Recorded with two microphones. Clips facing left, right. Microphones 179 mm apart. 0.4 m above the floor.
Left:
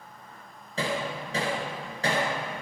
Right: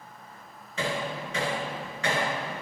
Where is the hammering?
35° left (ahead or behind), 2 m.